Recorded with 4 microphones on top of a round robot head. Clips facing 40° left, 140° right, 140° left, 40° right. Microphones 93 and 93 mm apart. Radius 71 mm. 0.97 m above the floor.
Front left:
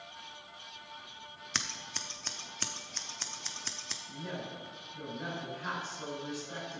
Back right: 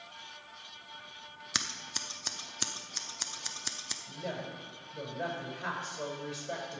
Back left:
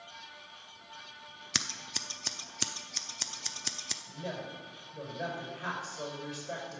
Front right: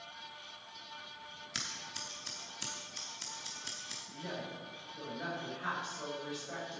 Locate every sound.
1.5 s scissors: 140° left, 0.6 m
4.1 s a woman speaking: 165° right, 5.5 m